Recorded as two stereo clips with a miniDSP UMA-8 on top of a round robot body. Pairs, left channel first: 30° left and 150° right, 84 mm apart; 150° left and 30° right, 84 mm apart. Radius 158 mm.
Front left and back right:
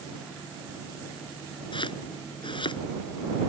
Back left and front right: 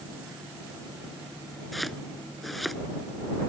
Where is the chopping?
60° left.